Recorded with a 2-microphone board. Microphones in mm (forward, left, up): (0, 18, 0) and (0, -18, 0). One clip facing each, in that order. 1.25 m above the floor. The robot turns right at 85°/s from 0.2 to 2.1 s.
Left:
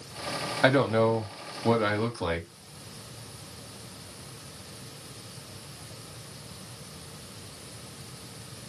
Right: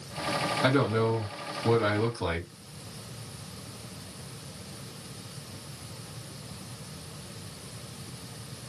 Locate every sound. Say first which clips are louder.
0.6 s a man speaking: left 5 dB; 45° left, 1.4 m; by 2.5 s 170° left, 1.4 m